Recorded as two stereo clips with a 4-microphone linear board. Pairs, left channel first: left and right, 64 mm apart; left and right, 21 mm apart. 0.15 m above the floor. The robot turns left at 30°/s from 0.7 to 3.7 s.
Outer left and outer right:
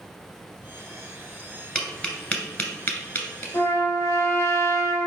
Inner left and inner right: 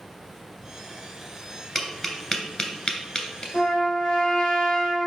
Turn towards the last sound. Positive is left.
turn(degrees=60)  # may be behind; listen again after turning